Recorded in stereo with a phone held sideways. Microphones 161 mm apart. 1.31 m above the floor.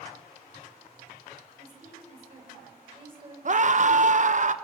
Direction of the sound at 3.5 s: 50° right (ahead or behind).